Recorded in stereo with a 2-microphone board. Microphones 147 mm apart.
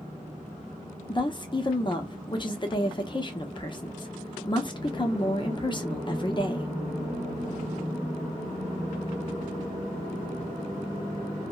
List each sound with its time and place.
1.1 s a woman speaking: 35° left (ahead or behind), 0.6 m